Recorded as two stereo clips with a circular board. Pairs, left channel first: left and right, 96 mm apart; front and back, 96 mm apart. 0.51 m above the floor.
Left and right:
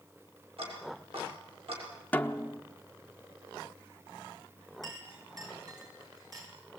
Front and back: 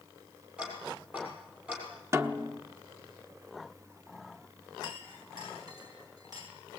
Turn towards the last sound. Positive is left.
turn(degrees=-135)